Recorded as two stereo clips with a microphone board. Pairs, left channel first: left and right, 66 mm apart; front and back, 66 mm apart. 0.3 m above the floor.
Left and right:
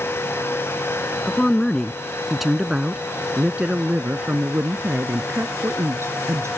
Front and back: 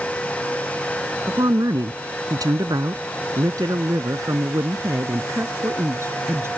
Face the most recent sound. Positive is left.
turn(degrees=-130)